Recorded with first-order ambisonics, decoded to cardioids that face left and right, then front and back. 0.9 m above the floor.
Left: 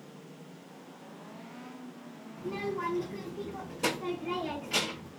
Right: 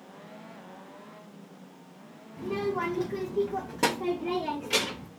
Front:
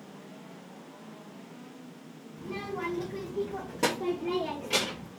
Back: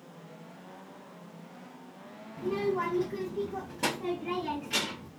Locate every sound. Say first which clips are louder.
2.4 s a child speaking: right 4 dB, back 6 dB; 135° right, 0.6 m; by 5.1 s 55° right, 1.7 m